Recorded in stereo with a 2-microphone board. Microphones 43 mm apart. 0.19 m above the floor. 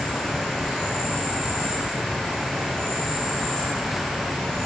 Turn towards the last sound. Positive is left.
turn(degrees=5)  # may be behind; listen again after turning